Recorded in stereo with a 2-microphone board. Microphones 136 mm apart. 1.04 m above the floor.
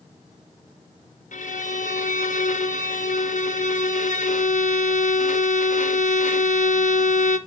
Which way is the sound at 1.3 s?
70° left (ahead or behind).